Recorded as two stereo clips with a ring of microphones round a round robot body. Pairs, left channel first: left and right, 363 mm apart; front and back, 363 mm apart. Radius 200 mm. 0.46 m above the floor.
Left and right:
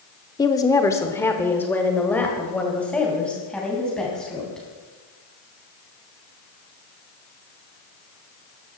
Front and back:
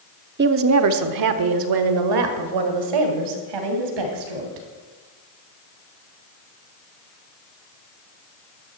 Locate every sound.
0.4 s a woman speaking: 160° left, 0.7 m; by 4.7 s straight behind, 3 m